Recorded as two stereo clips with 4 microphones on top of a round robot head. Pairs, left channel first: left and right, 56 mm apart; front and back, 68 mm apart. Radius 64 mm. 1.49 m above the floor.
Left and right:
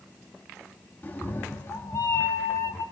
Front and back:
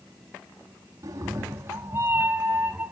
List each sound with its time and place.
1.0 s a cat meowing: 145° left, 1.5 m; by 2.9 s 105° left, 1.8 m